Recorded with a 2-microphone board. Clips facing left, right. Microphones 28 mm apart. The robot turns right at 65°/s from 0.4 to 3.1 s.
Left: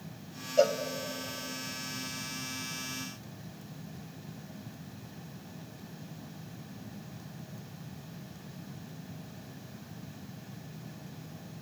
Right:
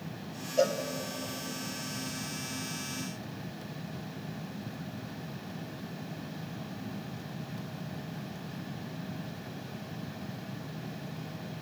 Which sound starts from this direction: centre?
A cowbell, at 0.6 s.